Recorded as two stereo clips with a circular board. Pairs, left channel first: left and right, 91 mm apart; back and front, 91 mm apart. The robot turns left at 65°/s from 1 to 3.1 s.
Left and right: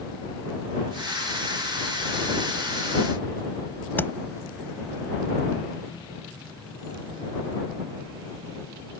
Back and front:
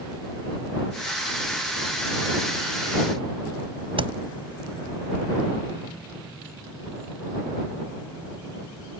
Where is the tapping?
20° left.